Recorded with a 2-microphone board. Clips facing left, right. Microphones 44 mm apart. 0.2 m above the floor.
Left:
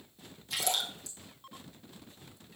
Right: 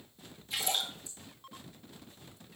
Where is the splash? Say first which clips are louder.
Left 1 dB; 70° left (ahead or behind), 2.0 m.